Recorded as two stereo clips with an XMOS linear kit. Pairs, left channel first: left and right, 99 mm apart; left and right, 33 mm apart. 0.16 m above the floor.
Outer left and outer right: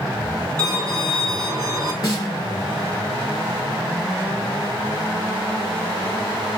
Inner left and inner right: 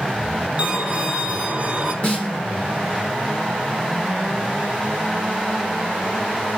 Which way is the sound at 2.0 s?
35° left (ahead or behind).